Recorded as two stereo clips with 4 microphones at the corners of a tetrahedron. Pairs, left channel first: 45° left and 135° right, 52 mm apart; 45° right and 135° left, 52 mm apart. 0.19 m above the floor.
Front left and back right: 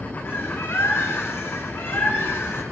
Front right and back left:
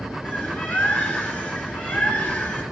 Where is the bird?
15° left, 1.7 m.